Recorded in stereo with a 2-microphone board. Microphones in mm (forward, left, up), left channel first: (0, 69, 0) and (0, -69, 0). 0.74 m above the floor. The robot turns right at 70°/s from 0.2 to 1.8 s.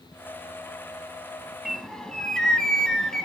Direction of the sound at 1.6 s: 5° right (ahead or behind).